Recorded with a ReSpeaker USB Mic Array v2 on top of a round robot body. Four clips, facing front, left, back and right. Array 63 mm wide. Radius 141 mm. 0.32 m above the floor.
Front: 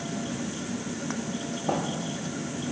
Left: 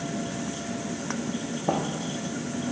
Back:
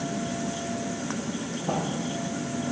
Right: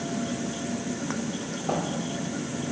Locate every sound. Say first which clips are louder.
1.7 s footsteps: left 2 dB, front 1 dB; 85° left, 0.8 m